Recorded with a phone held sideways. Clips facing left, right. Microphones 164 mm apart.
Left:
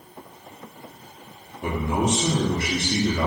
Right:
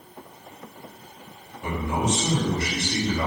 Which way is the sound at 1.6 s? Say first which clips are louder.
Left 2 dB; 60° left (ahead or behind).